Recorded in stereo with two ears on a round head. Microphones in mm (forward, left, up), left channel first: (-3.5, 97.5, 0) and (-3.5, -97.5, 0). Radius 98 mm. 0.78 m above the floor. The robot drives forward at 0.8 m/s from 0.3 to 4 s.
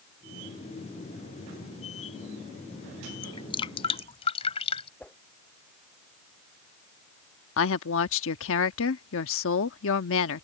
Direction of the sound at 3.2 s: 20° left (ahead or behind).